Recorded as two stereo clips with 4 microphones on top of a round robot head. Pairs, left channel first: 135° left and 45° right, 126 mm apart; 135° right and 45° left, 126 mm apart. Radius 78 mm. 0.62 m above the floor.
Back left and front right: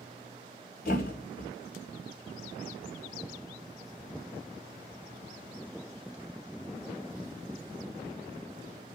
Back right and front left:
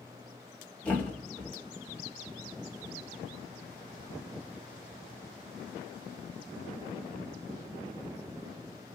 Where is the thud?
145° left, 1.4 m.